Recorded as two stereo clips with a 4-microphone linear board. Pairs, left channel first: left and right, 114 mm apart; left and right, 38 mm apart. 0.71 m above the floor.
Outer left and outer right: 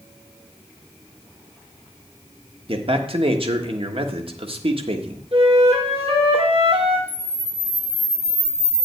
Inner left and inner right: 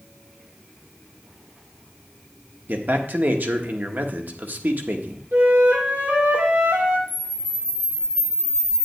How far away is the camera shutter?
About 1.5 m.